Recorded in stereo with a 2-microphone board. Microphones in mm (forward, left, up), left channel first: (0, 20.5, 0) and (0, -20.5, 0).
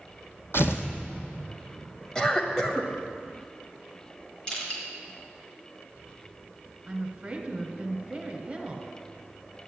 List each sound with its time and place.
0.5 s tearing paper: 75° left (ahead or behind), 1.6 m
2.1 s a cough: 15° left (ahead or behind), 1.6 m
4.5 s crushing: 20° left (ahead or behind), 4.5 m
6.9 s a woman speaking: 30° right (ahead or behind), 1.6 m